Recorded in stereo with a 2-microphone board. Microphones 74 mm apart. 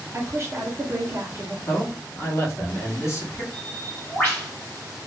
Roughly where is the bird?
Left.